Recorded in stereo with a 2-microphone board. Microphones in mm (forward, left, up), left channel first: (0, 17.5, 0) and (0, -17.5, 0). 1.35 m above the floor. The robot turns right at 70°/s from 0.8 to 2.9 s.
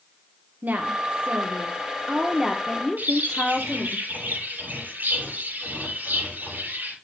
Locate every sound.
0.6 s a woman speaking: 125° right, 1.3 m; by 4.0 s 20° left, 1.3 m
3.0 s a bird: 55° right (ahead or behind), 8.5 m